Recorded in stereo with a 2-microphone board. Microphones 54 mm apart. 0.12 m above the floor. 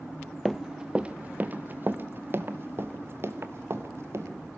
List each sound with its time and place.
0.5 s running footsteps: centre (ahead or behind), 0.6 m; by 4.3 s 50° right (ahead or behind), 2.5 m